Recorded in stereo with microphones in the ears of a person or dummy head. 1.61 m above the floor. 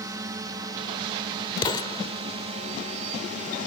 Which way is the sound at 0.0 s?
15° right (ahead or behind).